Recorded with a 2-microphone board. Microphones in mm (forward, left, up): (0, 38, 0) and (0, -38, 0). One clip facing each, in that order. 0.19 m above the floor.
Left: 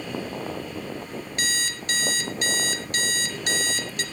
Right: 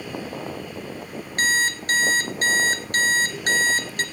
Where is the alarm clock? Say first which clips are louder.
Right 9 dB; 45° right (ahead or behind), 1.8 m.